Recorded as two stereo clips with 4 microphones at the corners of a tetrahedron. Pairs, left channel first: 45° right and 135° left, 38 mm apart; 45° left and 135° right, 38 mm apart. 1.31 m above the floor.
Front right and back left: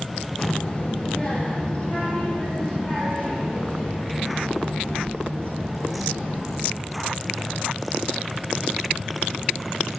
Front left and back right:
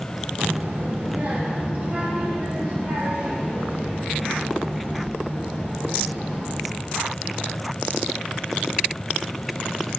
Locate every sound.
0.4 s a child speaking: 100° right, 0.8 m; by 6.6 s 105° right, 6 m